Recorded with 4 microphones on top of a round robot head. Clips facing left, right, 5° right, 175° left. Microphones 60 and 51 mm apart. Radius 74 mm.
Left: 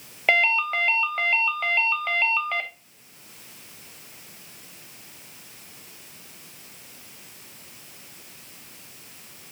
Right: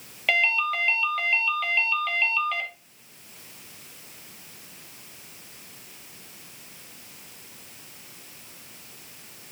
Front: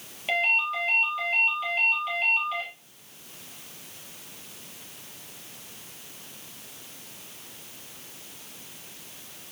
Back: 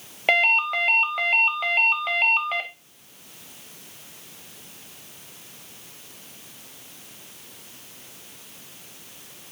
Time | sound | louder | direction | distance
0.3 | a ringtone | left 2 dB, back 5 dB | 145° left | 1.2 m